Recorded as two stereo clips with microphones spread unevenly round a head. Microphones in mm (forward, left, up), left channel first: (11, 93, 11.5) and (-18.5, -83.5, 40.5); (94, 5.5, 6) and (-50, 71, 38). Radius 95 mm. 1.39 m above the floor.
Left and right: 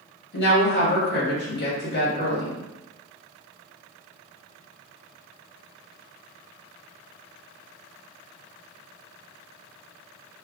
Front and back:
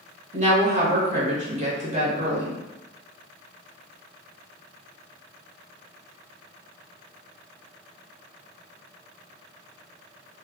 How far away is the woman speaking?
About 1.6 m.